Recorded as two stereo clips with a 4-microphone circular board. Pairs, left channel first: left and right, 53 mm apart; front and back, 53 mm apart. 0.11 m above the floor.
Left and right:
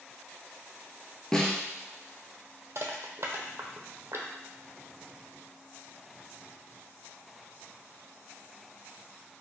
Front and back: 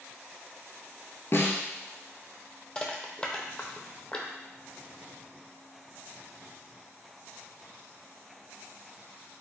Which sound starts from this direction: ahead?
A snare drum, at 1.3 s.